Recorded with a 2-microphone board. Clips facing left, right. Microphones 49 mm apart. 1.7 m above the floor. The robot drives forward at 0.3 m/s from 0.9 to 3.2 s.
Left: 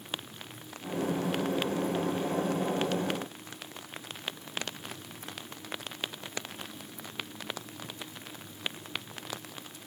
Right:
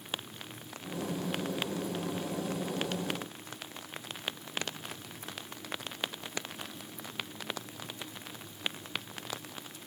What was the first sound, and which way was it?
Only background noise.